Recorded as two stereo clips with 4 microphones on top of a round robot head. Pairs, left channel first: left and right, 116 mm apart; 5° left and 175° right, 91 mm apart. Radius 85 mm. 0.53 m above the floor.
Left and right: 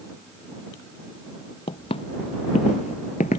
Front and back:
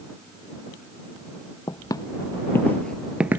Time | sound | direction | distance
1.7 | footsteps | 50° left | ?